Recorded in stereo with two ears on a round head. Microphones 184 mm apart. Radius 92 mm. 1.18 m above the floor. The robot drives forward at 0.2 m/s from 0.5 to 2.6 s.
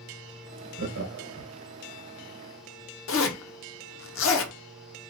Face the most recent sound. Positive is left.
turn(degrees=70)  # may be behind; listen again after turning